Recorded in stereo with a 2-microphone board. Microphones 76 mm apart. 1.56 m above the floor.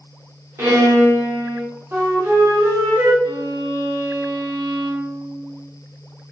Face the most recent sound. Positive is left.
turn(degrees=-55)  # may be behind; listen again after turning